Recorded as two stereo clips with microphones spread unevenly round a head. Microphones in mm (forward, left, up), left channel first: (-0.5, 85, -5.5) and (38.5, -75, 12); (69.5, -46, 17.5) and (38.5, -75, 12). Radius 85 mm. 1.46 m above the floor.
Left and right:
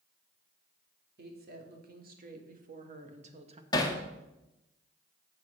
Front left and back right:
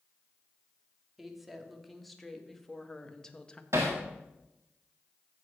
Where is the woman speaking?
50° right, 3 m; by 3.6 s 25° right, 1.5 m.